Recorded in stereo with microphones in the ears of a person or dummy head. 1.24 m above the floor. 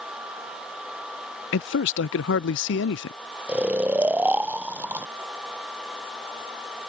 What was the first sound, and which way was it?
A man speaking, 65° left (ahead or behind).